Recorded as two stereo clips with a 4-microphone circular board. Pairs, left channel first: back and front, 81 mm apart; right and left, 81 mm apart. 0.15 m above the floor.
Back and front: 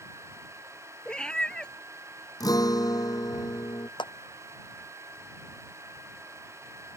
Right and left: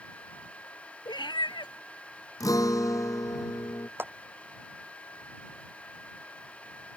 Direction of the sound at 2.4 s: 140° right.